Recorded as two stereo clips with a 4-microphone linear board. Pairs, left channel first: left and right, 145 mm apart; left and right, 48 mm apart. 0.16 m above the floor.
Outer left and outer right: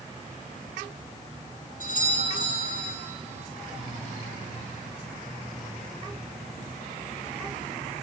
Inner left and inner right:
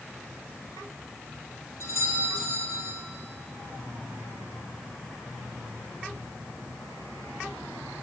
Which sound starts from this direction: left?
A doorbell, at 1.8 s.